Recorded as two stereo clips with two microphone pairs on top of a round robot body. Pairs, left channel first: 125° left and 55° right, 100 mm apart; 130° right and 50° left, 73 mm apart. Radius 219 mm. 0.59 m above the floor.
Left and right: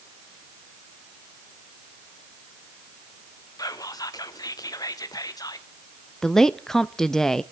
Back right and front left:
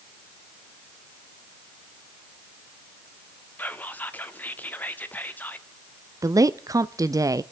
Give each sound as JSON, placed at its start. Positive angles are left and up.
{"t": 3.6, "sound": "whispering", "azimuth_deg": 170, "distance_m": 1.8}
{"t": 6.2, "sound": "a woman speaking", "azimuth_deg": 40, "distance_m": 0.7}